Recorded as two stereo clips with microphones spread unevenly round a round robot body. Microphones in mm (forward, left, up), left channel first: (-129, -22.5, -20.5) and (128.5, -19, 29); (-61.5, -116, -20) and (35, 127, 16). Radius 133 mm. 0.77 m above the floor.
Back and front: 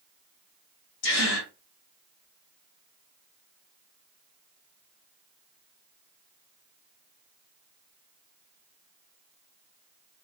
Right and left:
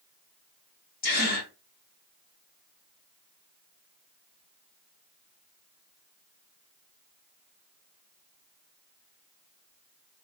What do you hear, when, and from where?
1.0 s a gasp: 160° right, 1.4 m